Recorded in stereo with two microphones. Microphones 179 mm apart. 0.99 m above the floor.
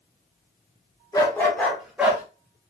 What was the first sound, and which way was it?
A dog barking, 20° left (ahead or behind).